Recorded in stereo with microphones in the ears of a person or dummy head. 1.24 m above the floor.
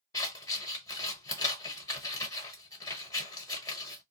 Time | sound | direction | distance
0.1 | scissors | 20° left (ahead or behind) | 1.0 m